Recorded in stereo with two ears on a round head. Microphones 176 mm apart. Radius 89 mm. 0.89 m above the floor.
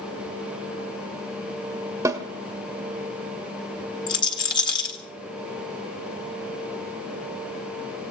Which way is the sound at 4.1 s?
20° left (ahead or behind).